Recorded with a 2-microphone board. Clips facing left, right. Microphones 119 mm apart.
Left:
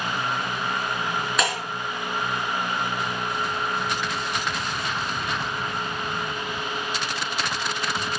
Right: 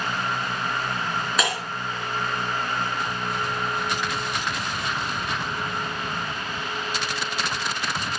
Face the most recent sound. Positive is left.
turn(degrees=0)  # may be behind; listen again after turning